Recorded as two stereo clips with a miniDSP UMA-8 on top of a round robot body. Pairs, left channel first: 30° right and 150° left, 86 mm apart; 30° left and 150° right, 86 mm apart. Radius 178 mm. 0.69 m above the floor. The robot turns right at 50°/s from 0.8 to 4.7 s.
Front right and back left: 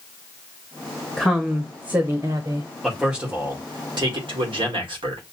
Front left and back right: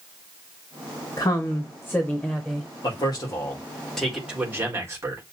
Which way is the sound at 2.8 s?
60° left.